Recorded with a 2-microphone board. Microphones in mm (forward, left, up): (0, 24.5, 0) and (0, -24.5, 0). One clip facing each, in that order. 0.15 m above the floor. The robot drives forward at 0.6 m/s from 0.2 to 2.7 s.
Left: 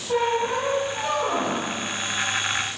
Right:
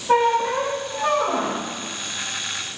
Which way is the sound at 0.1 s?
75° right (ahead or behind).